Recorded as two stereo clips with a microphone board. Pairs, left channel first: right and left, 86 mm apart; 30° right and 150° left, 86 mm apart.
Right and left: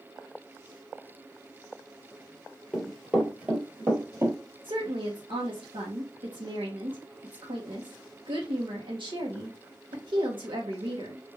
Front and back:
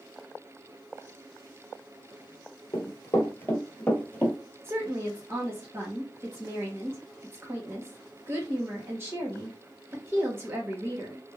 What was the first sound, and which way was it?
Running footsteps, 5° left.